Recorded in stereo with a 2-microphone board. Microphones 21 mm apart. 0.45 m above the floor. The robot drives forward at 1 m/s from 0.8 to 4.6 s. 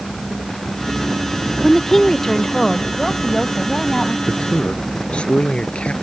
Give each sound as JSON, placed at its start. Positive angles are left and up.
{"t": 1.6, "sound": "a woman speaking", "side_deg": 15}
{"t": 4.3, "sound": "a man speaking", "side_deg": 50}